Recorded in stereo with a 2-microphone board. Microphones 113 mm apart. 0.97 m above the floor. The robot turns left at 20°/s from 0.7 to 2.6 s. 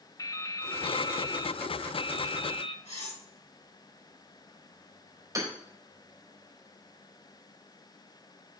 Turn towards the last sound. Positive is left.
turn(degrees=-30)  # may be behind; listen again after turning